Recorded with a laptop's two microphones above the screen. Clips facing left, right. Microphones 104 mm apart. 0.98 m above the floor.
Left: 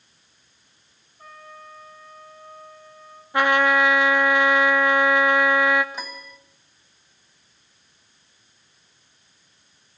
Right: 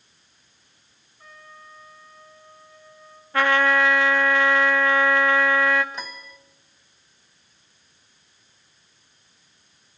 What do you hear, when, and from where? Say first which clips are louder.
1.2 s a trumpet: left 4 dB; 50° left (ahead or behind), 7 m
3.3 s a trumpet: left 1 dB; 15° left (ahead or behind), 1.0 m
5.9 s a piano: left 1 dB; 5° left (ahead or behind), 1.3 m